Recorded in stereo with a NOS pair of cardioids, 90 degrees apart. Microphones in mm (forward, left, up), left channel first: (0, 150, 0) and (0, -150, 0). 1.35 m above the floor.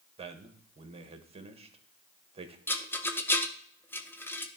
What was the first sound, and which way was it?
A man speaking, 20° right.